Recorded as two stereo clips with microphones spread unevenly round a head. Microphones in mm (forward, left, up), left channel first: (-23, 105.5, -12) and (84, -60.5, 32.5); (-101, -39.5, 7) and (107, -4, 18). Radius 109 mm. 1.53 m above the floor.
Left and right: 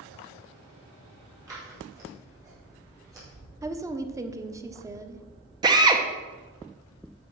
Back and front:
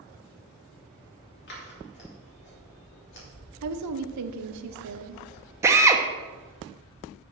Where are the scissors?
135° right, 3.5 m.